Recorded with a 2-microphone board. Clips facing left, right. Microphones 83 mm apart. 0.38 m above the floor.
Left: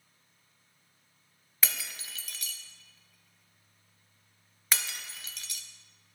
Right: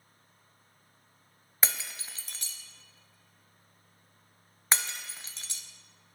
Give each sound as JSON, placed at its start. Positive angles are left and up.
{"t": 1.6, "sound": "breaking glass", "side_deg": -30, "distance_m": 0.5}